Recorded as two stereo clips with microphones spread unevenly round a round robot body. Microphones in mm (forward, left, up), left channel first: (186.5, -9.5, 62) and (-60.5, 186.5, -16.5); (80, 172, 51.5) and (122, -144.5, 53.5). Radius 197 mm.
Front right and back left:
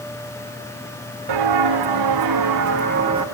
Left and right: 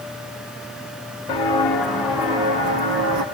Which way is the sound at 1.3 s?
175° left.